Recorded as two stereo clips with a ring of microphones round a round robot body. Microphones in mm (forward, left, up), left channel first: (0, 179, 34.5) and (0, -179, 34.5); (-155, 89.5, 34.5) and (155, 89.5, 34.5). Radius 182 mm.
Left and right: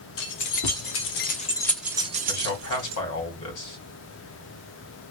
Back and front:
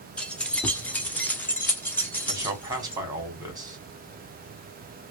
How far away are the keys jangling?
About 1.1 m.